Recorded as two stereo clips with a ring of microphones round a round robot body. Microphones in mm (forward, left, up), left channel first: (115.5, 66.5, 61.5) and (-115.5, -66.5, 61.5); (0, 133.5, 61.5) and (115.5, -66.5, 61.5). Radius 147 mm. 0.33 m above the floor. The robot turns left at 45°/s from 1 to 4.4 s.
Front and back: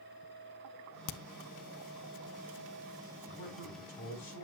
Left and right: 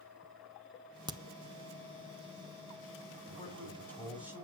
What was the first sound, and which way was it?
A crack, 15° left.